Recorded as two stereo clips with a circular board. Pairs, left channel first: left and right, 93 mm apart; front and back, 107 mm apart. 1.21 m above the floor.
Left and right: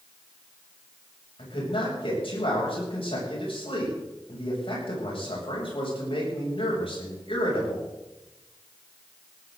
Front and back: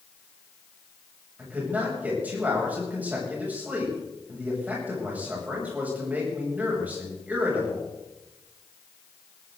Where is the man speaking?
105° left, 8 m.